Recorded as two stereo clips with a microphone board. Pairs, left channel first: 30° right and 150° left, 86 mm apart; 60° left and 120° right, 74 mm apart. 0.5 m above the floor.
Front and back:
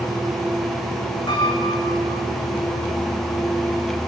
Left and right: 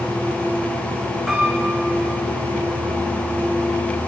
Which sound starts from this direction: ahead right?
A piano, at 1.3 s.